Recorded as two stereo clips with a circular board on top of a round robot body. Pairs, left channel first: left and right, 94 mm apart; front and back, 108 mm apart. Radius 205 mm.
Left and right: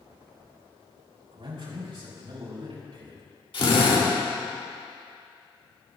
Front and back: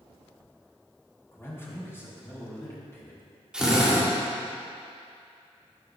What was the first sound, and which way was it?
A man speaking, 65° right.